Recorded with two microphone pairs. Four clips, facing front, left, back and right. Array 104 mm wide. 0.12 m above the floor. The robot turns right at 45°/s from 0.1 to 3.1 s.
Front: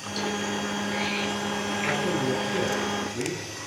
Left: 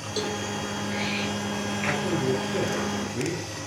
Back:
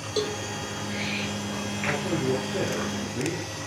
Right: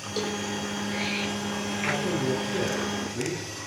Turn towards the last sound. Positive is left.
turn(degrees=65)